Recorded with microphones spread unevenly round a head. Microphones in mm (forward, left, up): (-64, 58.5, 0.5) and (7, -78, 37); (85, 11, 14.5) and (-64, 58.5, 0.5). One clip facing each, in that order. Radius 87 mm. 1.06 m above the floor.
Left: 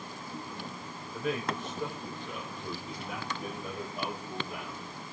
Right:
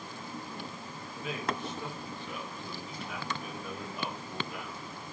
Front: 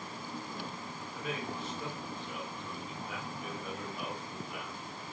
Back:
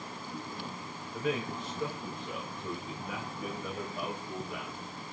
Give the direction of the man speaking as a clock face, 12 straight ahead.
7 o'clock.